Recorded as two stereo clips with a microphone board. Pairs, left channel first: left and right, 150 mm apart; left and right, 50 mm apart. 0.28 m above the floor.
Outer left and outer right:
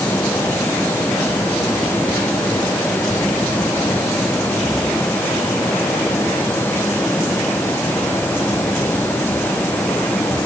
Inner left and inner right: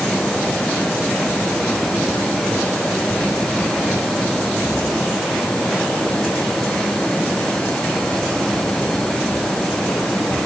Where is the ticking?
No ticking in this recording.